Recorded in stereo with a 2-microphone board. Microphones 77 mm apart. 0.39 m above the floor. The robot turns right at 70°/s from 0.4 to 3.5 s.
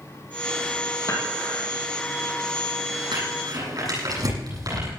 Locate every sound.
1.1 s dishes clattering: 50° left (ahead or behind), 7 m; by 1.6 s 10° left (ahead or behind), 7 m
3.1 s crumpling: 85° right, 9.5 m; by 4.9 s 55° right (ahead or behind), 9.5 m